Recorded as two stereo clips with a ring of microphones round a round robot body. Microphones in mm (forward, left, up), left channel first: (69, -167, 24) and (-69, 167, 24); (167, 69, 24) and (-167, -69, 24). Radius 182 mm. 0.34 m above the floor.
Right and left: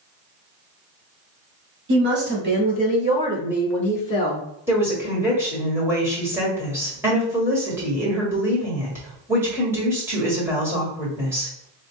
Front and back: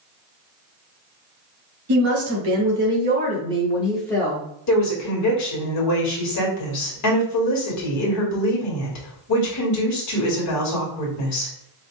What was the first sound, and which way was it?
A woman speaking, 165° left.